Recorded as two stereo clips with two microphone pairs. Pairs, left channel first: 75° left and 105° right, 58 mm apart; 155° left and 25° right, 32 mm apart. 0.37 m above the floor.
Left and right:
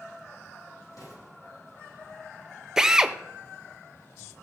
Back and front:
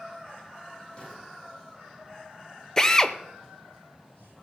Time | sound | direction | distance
0.9 | an explosion | 100° left | 7.5 m
2.8 | a drill | 150° right | 0.5 m